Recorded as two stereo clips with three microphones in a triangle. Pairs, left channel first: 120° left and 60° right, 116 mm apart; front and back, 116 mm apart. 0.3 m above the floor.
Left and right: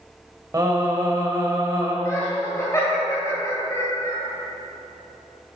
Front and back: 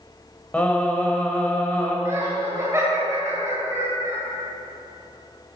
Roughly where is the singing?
Ahead right.